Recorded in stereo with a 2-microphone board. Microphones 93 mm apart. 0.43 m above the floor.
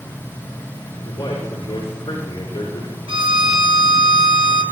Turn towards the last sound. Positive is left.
turn(degrees=-75)  # may be behind; listen again after turning